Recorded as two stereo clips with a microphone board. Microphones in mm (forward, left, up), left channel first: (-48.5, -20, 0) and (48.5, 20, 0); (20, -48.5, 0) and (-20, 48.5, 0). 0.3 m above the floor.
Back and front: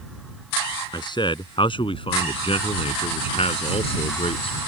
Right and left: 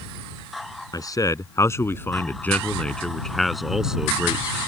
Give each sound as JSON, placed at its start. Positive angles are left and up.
{"t": 0.9, "sound": "a man speaking", "azimuth_deg": -115}